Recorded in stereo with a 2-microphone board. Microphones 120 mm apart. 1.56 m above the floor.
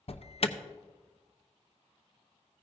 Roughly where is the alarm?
Left.